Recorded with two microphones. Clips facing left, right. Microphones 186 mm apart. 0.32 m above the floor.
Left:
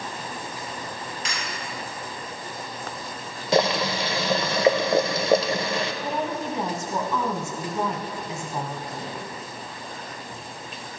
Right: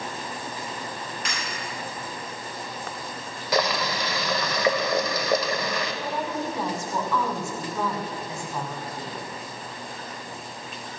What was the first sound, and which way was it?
Breaking glass, 60° right (ahead or behind).